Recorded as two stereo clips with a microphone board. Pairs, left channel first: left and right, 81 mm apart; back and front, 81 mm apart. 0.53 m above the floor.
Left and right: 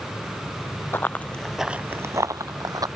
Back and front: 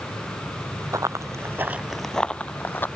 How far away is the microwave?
I don't hear a microwave.